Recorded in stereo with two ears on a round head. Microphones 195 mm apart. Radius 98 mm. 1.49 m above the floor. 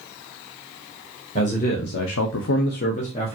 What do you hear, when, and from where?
1.4 s a man speaking: 30° left (ahead or behind), 1.1 m; by 3.4 s 25° left (ahead or behind), 1.2 m